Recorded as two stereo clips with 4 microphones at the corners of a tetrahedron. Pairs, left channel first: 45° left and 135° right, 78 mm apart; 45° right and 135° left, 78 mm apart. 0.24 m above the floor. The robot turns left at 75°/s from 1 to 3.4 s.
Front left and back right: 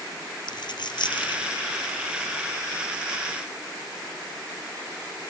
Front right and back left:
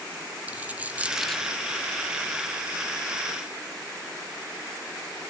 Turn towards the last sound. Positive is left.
turn(degrees=-115)